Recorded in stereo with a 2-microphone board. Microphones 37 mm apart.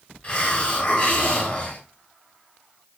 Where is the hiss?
20° left (ahead or behind), 1.3 m.